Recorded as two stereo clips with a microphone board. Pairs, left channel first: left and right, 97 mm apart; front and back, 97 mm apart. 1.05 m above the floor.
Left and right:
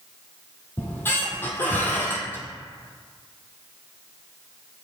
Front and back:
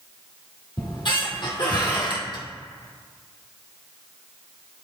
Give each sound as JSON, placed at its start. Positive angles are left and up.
{"t": 0.8, "sound": "a squeak", "azimuth_deg": 25, "distance_m": 1.9}